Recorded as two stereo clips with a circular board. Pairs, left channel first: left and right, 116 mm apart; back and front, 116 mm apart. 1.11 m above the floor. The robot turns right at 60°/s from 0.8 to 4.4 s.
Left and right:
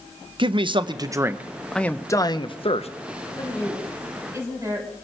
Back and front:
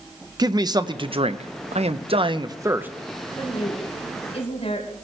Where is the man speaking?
50° right, 0.8 m; by 2.9 s 75° left, 0.8 m.